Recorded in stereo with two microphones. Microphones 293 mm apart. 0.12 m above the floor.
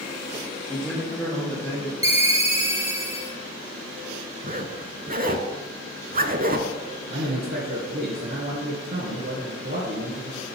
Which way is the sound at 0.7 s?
5° left (ahead or behind).